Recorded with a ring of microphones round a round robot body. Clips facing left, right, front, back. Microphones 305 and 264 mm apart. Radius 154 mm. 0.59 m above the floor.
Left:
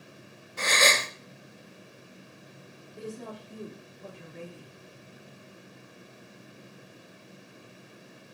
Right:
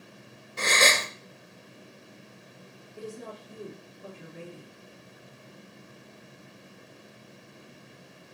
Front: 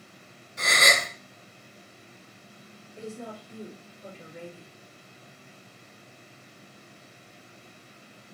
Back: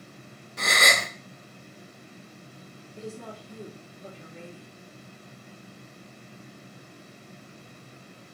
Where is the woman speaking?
170° right, 1.2 m.